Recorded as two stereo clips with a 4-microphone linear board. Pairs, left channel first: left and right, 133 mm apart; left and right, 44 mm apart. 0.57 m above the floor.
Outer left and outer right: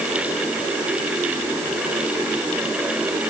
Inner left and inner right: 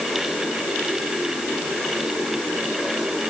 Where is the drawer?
No drawer in this recording.